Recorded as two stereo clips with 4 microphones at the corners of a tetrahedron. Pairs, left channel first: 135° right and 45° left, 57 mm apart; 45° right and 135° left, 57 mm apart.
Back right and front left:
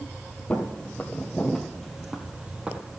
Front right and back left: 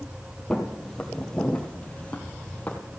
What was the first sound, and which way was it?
Footsteps, 115° right.